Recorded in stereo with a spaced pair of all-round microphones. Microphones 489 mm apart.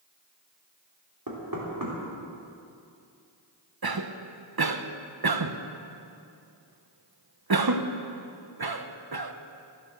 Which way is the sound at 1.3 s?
45° right (ahead or behind).